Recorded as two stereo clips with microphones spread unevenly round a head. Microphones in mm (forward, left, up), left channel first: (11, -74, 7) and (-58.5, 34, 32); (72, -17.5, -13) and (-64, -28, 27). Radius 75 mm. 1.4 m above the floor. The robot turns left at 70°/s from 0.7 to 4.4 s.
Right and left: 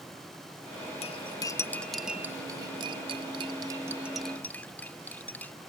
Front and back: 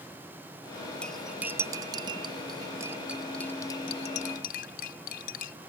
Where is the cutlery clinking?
90° right; by 5.5 s 30° left.